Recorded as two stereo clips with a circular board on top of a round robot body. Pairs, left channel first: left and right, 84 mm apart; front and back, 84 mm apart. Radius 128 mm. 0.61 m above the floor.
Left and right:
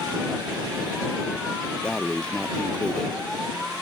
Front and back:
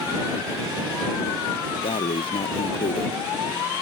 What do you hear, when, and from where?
1.8 s breathing: 10° left